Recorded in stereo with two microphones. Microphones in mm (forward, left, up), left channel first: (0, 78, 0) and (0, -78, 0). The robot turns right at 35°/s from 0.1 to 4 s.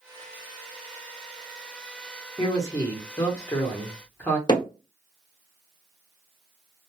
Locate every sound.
2.4 s a man speaking: 25° left (ahead or behind), 1.0 m; by 4.4 s 10° left (ahead or behind), 1.0 m
4.5 s hammering: 30° left (ahead or behind), 0.9 m